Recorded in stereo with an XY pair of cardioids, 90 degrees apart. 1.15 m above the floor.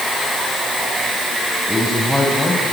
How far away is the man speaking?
About 6.5 m.